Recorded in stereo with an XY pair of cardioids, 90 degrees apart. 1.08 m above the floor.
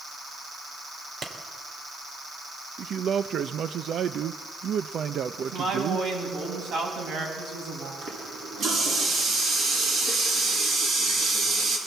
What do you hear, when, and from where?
1.2 s a clap: 55° right, 3 m
2.8 s a man speaking: 65° right, 0.7 m
5.4 s a woman speaking: 70° right, 9 m
8.0 s a running tap: 65° right, 8.5 m